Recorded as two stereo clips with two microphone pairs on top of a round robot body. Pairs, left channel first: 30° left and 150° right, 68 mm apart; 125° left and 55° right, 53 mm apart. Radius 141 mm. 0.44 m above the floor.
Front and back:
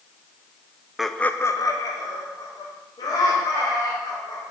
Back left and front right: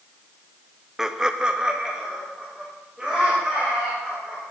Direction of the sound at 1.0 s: 125° right.